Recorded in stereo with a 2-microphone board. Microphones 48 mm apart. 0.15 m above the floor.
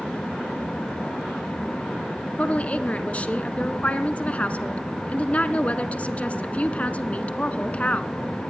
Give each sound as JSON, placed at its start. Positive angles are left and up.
{"t": 2.4, "sound": "a woman speaking", "side_deg": 30, "distance_m": 1.3}